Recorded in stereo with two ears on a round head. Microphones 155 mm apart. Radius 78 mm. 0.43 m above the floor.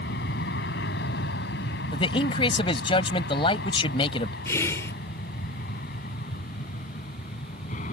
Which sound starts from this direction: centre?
Whispering, at 4.5 s.